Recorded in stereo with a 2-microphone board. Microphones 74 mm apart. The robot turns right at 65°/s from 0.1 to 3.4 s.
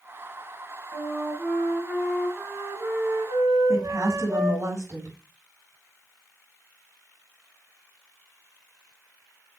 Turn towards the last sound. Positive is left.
turn(degrees=-50)  # may be behind; listen again after turning